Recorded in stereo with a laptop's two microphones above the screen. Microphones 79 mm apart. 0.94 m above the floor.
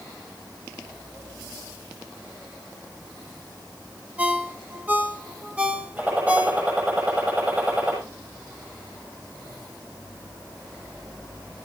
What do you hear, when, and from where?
4.2 s a ringtone: 20° right (ahead or behind), 1.0 m
6.0 s a gunshot: 20° right (ahead or behind), 7 m